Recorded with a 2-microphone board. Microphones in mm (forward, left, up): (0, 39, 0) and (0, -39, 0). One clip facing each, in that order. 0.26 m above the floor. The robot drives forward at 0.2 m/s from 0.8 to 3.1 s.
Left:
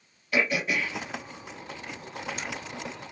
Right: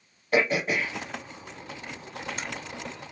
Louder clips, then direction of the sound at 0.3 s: Right 3 dB; 40° right (ahead or behind).